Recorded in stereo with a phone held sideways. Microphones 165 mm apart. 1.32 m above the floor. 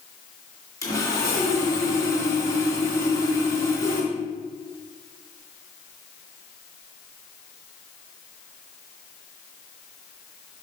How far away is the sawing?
About 3 m.